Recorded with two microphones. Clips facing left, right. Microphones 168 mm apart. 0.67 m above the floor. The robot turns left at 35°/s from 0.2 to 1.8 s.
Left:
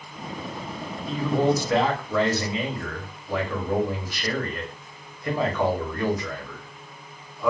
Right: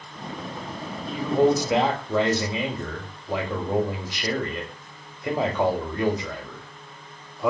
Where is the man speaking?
5° right (ahead or behind), 0.8 m; by 7.5 s 20° right (ahead or behind), 0.8 m.